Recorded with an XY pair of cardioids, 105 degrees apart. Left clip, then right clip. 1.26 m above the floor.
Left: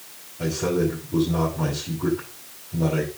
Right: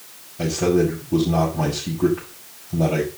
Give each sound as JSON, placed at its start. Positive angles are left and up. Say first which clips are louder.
{"t": 0.4, "sound": "a man speaking", "louder": "right 4 dB", "azimuth_deg": -70, "distance_m": 6.5}